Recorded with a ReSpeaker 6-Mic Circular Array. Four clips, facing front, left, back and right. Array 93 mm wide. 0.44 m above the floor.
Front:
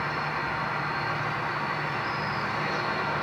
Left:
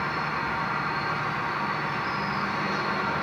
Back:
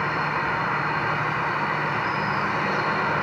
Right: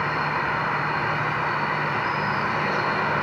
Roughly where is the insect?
Behind right.